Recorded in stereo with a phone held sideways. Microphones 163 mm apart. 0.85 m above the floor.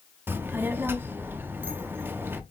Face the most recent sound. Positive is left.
turn(degrees=-10)  # may be behind; listen again after turning